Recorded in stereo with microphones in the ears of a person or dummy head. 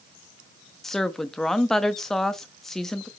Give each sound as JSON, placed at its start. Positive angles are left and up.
{"t": 0.8, "sound": "a woman speaking", "side_deg": 5, "distance_m": 0.5}